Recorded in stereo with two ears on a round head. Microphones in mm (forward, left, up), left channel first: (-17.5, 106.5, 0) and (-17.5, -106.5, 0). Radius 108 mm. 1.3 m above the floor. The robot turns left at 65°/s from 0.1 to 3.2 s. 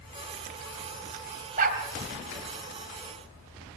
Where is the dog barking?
35° right (ahead or behind), 2.5 m; by 1.8 s 45° right (ahead or behind), 2.5 m.